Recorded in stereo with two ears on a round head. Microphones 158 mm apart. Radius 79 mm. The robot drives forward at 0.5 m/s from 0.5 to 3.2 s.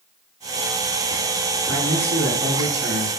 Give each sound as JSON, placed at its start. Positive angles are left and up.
{"t": 1.7, "sound": "a man speaking", "side_deg": -70, "distance_m": 4.5}